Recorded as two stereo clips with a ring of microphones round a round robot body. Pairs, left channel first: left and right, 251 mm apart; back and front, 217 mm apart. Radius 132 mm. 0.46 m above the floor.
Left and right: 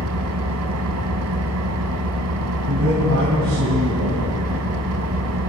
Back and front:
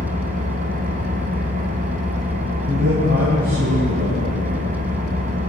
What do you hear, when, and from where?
0.0 s an engine running: 60° right, 1.2 m
2.7 s a man speaking: 55° right, 3 m